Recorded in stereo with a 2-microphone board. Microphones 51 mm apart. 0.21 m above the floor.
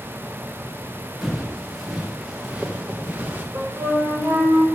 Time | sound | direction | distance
1.2 | footsteps | 5° right (ahead or behind) | 2.5 m
3.5 | a flute | 55° right (ahead or behind) | 5 m